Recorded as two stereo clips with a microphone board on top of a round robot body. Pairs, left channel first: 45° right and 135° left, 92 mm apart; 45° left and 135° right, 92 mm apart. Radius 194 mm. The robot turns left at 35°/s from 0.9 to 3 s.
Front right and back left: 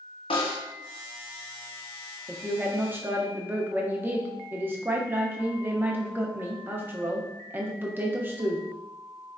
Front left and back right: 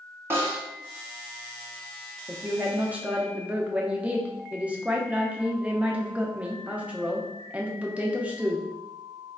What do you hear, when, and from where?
0.3 s a snare drum: 70° right, 0.7 m
2.3 s a woman speaking: 165° right, 0.8 m; by 8.7 s 165° left, 0.8 m